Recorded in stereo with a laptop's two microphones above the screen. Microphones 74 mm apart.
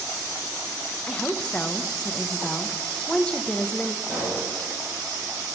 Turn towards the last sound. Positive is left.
turn(degrees=5)  # may be behind; listen again after turning